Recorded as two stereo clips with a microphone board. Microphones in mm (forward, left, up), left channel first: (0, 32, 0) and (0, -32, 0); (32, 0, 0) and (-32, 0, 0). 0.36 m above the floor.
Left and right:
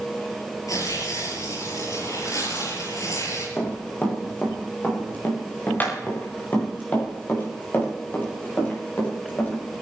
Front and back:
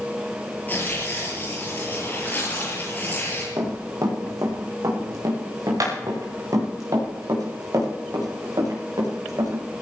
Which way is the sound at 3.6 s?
150° left.